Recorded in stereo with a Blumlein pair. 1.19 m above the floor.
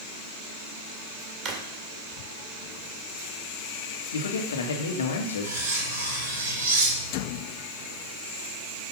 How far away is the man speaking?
About 2.0 m.